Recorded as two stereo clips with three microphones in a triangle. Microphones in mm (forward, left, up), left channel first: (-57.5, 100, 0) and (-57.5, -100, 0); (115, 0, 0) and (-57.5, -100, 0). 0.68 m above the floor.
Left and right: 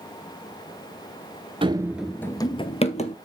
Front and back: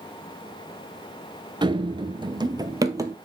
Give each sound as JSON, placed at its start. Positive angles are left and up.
{"t": 1.6, "sound": "running footsteps", "azimuth_deg": -110, "distance_m": 0.7}